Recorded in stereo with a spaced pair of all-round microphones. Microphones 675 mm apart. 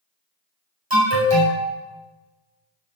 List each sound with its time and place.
0.9 s an alarm: 35° right (ahead or behind), 4 m